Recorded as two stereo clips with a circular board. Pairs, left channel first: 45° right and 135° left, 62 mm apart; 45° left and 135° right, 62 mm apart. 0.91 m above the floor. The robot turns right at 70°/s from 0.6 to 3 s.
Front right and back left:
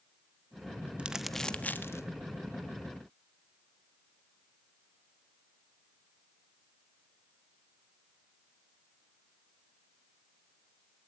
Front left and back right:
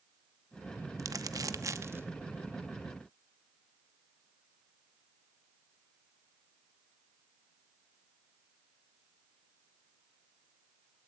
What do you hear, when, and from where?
1.0 s crumpling: 155° right, 1.1 m; by 2.0 s 85° right, 1.1 m